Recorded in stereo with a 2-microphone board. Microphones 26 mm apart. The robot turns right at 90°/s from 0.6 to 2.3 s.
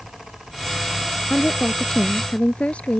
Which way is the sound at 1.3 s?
40° left.